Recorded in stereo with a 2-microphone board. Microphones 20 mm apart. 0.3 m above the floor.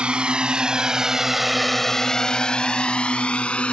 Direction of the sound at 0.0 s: 50° right (ahead or behind).